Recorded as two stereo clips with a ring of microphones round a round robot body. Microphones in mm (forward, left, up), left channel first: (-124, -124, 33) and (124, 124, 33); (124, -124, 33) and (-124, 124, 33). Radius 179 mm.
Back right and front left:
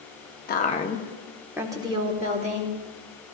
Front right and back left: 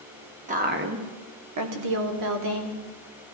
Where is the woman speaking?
175° right, 0.8 m; by 2.8 s 110° left, 1.7 m.